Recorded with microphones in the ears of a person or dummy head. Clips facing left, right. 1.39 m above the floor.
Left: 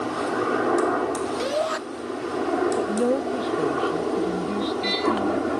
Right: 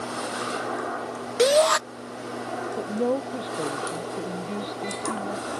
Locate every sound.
0.0 s a helicopter: 55° left (ahead or behind); by 5.6 s 50° left (ahead or behind)
1.4 s a shout: 60° right (ahead or behind)
2.8 s a woman speaking: 20° left (ahead or behind)